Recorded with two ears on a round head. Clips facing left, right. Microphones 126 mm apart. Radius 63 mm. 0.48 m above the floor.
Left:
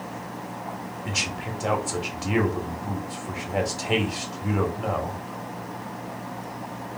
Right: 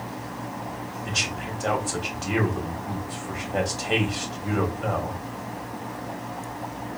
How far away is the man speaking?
About 1.0 m.